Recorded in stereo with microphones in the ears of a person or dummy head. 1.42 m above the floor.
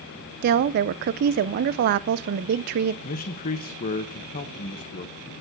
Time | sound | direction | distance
0.4 | a woman speaking | 50° right (ahead or behind) | 0.7 m
3.0 | a man speaking | 40° left (ahead or behind) | 1.2 m